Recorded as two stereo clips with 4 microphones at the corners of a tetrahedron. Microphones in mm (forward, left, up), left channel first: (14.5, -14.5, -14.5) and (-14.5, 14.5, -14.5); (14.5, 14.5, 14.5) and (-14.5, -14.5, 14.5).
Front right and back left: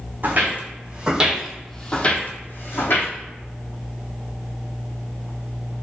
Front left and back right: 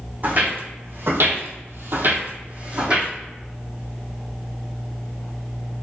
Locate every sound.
0.2 s footsteps: straight behind, 1.1 m; by 3.1 s 65° right, 1.0 m